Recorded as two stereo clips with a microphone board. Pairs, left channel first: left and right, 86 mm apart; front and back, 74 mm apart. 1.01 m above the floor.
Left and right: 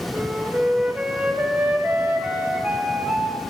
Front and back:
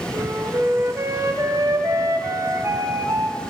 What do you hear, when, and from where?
0.1 s a flute: 160° right, 0.6 m